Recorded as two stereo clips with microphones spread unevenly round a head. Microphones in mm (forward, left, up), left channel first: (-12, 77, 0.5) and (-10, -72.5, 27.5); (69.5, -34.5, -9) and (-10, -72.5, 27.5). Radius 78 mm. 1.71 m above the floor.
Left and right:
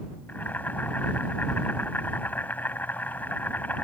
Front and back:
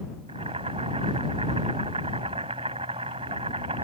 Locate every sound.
0.3 s boiling: 175° left